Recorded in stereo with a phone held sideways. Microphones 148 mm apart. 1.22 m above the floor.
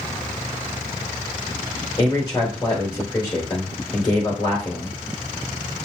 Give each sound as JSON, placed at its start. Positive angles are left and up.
{"t": 2.0, "sound": "a man speaking", "side_deg": 30, "distance_m": 2.5}